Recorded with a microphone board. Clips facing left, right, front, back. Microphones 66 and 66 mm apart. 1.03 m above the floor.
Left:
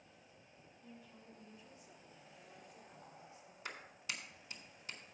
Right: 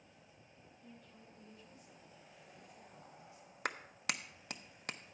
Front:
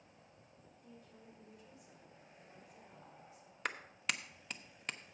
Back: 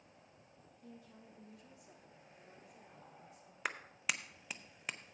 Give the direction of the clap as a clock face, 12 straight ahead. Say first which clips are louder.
Right 7 dB, even; 3 o'clock.